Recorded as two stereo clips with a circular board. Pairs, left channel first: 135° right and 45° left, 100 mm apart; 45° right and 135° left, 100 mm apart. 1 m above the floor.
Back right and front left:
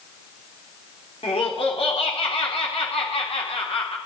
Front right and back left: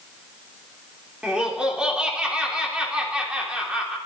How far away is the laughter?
About 3 m.